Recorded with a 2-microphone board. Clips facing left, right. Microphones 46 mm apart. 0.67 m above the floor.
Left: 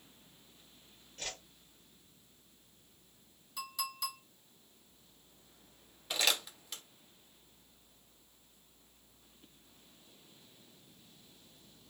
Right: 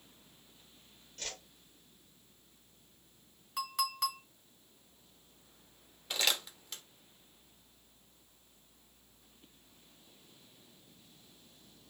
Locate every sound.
1.2 s a whoosh: 15° left (ahead or behind), 0.7 m
3.6 s a clink: 55° right (ahead or behind), 1.6 m
6.1 s crumpling: 5° left (ahead or behind), 0.7 m